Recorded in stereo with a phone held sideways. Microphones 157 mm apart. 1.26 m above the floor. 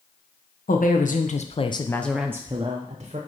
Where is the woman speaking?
60° left (ahead or behind), 1.0 m; by 3.2 s 45° right (ahead or behind), 0.9 m.